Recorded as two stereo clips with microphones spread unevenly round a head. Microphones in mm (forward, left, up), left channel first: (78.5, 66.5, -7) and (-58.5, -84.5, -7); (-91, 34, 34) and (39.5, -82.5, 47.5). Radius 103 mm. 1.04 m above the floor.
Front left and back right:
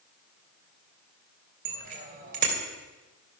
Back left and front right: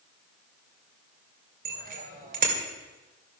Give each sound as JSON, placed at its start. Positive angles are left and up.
{"t": 1.6, "sound": "a bicycle bell", "azimuth_deg": -80, "distance_m": 3.0}